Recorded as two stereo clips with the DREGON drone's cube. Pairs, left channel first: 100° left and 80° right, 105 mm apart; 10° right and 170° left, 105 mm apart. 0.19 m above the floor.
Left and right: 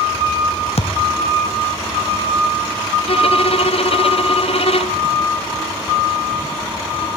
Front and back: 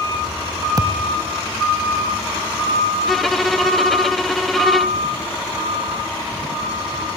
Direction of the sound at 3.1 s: 75° left.